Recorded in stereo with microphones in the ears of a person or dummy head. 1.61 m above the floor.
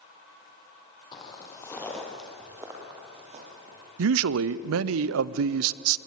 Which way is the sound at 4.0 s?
75° right (ahead or behind).